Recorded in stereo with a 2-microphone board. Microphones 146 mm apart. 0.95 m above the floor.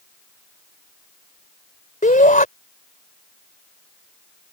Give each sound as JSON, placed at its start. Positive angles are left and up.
{"t": 2.0, "sound": "a shout", "side_deg": 60}